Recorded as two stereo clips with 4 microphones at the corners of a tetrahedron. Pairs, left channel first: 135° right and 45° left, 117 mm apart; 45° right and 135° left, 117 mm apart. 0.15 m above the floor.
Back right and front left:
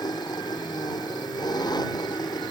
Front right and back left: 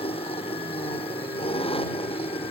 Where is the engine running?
80° right.